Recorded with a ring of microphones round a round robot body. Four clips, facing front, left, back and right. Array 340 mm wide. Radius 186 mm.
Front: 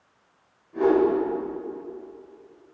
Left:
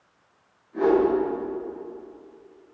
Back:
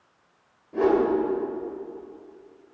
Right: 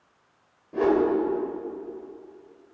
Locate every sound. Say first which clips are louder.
0.7 s a whoosh: left 2 dB, front 1 dB; 120° right, 3 m